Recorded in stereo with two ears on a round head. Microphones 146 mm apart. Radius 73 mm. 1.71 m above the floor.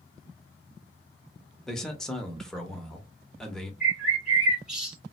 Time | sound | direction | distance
1.7 | a man speaking | 5° left (ahead or behind) | 0.9 m
3.8 | a bird | 5° right (ahead or behind) | 1.9 m